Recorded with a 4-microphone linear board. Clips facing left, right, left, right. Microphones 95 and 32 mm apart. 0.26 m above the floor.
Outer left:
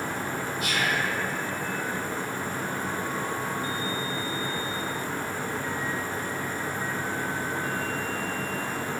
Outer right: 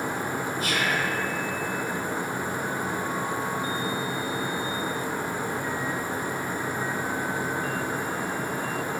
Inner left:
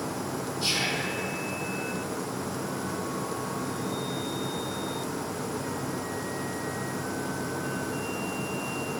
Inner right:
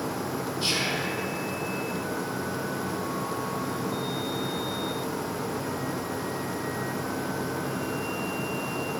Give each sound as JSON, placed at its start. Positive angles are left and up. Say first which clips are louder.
{"t": 0.6, "sound": "whispering", "louder": "even, even", "side_deg": -30, "distance_m": 1.3}